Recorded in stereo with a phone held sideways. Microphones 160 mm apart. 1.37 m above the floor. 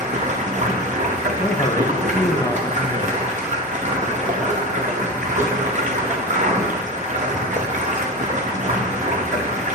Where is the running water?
50° right (ahead or behind), 0.8 m.